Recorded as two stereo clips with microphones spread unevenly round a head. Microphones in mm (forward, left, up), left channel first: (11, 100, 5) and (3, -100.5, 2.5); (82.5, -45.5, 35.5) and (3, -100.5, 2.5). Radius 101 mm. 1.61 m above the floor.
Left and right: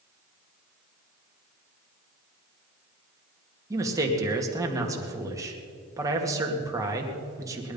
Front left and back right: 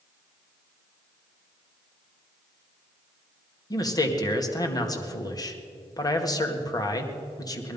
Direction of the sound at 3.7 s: 20° right.